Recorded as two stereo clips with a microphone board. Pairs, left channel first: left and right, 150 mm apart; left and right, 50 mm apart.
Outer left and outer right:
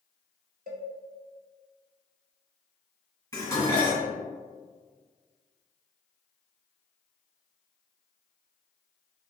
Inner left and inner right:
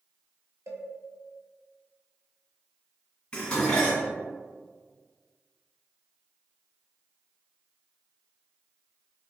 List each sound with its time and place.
0.7 s a cowbell: 75° right (ahead or behind), 1.1 m
3.3 s dishes clattering: 20° left (ahead or behind), 2.0 m